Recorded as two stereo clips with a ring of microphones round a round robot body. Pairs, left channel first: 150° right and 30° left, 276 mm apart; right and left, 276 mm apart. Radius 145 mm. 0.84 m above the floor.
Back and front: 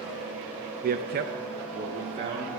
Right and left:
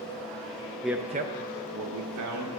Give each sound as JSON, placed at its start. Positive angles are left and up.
{"t": 0.8, "sound": "a man speaking", "azimuth_deg": 0, "distance_m": 0.5}